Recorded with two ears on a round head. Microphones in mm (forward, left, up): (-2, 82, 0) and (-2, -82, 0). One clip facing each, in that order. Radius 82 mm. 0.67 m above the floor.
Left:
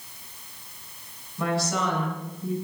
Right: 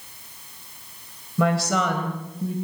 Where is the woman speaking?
60° right (ahead or behind), 3.5 m; by 2.5 s 50° right (ahead or behind), 5 m.